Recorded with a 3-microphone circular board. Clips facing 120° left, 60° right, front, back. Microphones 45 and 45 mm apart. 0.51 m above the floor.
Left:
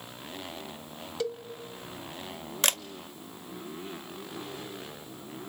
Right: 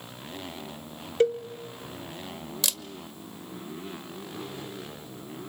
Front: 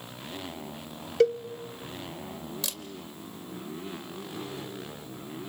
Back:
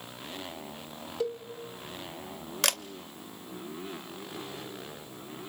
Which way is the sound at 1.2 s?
15° right.